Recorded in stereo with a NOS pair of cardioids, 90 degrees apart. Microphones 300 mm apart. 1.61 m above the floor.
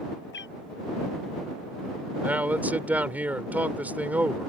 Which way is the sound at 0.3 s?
35° left.